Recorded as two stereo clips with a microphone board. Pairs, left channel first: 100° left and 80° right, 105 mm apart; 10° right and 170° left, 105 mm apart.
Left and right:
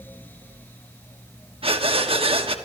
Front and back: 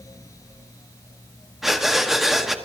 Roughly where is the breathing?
Right.